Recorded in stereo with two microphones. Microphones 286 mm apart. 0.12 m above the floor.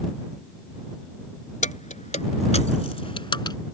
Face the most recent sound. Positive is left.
turn(degrees=15)  # may be behind; listen again after turning